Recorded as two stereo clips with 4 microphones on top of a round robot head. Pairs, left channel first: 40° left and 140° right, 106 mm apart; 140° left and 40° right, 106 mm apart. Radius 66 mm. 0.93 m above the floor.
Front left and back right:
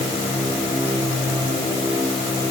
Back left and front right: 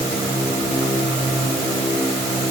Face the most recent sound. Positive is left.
No sound to turn to.